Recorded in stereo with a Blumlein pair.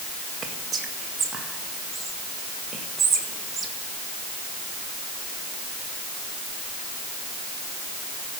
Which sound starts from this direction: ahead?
Whispering, at 0.4 s.